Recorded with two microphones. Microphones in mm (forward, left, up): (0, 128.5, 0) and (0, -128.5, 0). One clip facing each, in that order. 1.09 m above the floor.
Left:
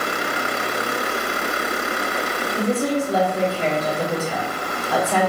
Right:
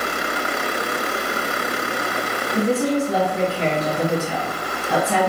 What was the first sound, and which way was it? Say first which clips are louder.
A woman speaking: right 2 dB; 70° right (ahead or behind).